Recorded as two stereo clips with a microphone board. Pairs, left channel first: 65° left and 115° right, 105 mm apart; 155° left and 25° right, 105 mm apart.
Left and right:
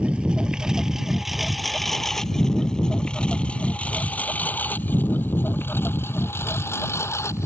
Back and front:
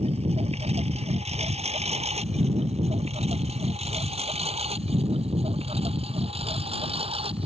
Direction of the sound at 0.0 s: 35° right.